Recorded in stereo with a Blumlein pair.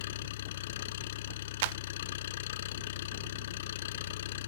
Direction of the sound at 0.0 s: 55° left.